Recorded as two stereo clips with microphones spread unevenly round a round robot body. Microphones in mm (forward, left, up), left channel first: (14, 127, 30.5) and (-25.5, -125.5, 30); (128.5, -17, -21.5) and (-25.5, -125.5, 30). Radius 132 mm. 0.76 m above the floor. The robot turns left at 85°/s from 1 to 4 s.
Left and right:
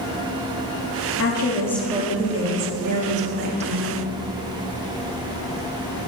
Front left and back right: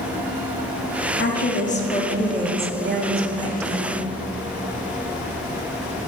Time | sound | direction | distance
1.2 | a woman speaking | 45° left | 1.3 m